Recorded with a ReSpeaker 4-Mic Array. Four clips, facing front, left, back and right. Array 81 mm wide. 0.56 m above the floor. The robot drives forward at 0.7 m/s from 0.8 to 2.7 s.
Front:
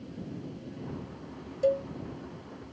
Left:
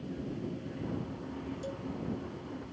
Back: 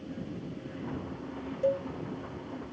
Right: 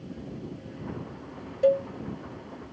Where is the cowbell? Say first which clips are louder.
Right 18 dB, front 2 dB; 80° right; by 1.9 s 85° right.